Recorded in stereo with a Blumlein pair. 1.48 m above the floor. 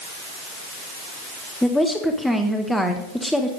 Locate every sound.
1.6 s a woman speaking: 5° left, 1.6 m